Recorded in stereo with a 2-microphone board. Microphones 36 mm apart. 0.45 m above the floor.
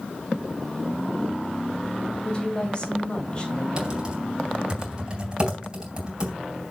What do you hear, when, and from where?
2.2 s a woman speaking: 25° left (ahead or behind), 2.5 m
3.8 s typing on a keyboard: 25° right (ahead or behind), 3 m